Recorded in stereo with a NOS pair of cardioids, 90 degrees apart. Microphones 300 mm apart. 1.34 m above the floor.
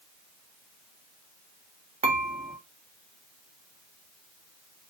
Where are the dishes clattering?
25° right, 0.9 m.